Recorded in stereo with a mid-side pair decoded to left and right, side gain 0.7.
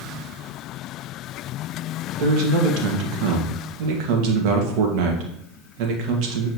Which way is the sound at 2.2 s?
70° right.